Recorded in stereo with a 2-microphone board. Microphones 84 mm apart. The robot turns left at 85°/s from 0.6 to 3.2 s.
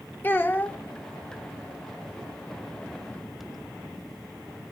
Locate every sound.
0.2 s a child speaking: 25° left (ahead or behind), 0.8 m; by 0.8 s 10° left (ahead or behind), 0.8 m